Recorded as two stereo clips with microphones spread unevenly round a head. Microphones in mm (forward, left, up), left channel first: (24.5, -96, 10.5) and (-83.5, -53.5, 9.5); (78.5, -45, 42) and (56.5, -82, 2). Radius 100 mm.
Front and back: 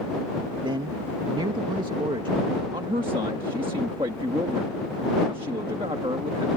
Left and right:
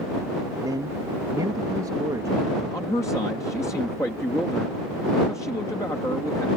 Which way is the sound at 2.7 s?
90° left.